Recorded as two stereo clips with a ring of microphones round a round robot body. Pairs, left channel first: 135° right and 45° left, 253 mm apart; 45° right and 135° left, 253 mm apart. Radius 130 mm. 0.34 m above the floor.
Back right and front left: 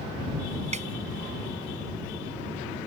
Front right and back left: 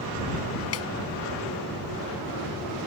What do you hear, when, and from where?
0.7 s a snare drum: 20° right